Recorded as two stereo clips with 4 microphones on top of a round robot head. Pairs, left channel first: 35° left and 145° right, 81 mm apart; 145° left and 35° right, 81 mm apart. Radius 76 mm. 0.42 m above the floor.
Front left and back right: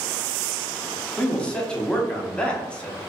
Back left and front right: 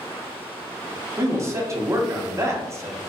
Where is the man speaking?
30° right, 0.9 m.